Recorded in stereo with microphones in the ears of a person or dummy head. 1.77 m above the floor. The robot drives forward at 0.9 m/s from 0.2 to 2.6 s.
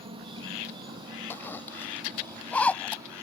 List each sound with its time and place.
0.0 s an insect: 25° right (ahead or behind); by 3.2 s 15° right (ahead or behind)
1.3 s a zipper: 15° left (ahead or behind); by 3.2 s 10° left (ahead or behind)